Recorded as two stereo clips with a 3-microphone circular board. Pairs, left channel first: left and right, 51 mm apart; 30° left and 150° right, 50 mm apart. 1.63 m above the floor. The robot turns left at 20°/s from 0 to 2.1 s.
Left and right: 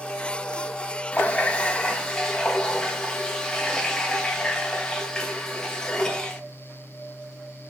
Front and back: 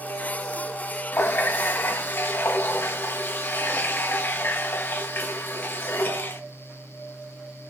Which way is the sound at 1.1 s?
40° left.